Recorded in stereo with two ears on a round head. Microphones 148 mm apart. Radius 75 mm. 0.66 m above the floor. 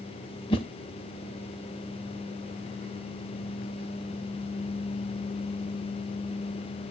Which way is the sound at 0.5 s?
30° left (ahead or behind).